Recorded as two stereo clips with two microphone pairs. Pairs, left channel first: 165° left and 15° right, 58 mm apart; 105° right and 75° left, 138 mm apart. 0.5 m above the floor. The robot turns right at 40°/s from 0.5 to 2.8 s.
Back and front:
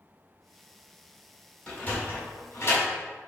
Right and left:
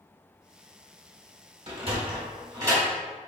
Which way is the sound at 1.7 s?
95° left.